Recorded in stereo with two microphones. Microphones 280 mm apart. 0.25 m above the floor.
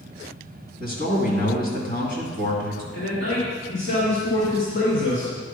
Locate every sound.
0.8 s a man speaking: 35° left (ahead or behind), 2.0 m
2.9 s a man speaking: 45° left (ahead or behind), 2 m